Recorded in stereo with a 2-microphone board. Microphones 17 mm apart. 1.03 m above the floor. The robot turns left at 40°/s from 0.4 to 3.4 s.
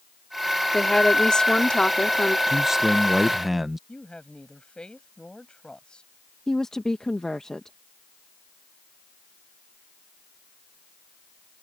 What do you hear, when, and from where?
0.7 s a woman speaking: 145° left; by 2.4 s 80° left
2.5 s a man speaking: 25° right (ahead or behind); by 3.8 s 15° right (ahead or behind)
3.9 s a woman speaking: 70° left (ahead or behind)
6.5 s a woman speaking: 45° left (ahead or behind)